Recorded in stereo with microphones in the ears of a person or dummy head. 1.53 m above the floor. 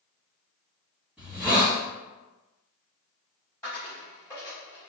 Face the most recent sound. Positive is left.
turn(degrees=10)  # may be behind; listen again after turning